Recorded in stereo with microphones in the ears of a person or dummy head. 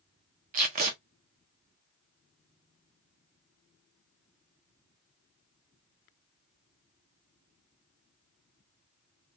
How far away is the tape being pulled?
About 0.6 m.